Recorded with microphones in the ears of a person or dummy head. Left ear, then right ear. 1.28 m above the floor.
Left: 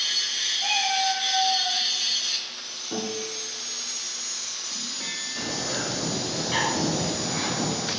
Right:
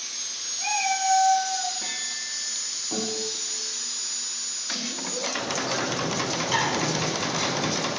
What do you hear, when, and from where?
0.6 s a cat meowing: 75° right (ahead or behind), 2 m; by 1.8 s 55° right (ahead or behind), 2 m
2.9 s a guitar: 15° right (ahead or behind), 1.5 m
5.3 s a bird: 30° right (ahead or behind), 1.6 m